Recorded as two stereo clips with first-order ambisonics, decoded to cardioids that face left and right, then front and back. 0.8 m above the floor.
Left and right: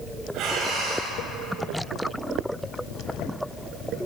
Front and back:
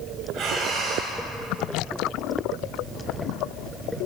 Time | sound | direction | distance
0.3 | breathing | 135° right | 5.5 m